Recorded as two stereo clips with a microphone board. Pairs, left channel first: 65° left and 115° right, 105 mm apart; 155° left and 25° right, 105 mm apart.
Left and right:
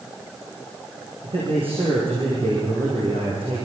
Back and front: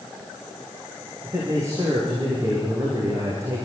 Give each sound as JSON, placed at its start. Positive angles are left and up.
{"t": 1.2, "sound": "a man speaking", "azimuth_deg": -85, "distance_m": 8.0}